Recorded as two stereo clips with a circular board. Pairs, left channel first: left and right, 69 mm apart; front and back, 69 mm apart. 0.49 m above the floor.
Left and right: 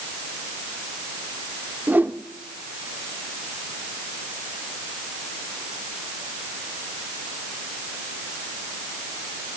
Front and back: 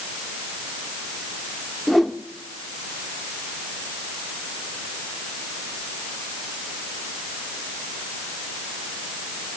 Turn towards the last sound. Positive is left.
turn(degrees=-85)